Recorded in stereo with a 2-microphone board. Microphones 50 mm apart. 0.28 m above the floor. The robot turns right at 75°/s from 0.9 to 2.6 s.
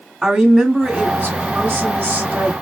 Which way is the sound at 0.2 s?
165° right.